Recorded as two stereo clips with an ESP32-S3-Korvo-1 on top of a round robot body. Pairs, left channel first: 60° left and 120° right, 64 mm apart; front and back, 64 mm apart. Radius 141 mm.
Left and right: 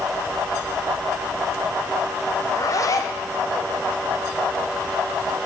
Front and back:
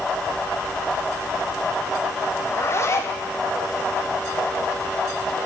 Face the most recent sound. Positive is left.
turn(degrees=40)